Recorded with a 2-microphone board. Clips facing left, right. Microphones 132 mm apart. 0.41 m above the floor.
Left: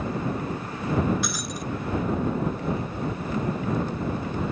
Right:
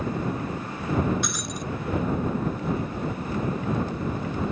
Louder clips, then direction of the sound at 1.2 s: Even; centre (ahead or behind).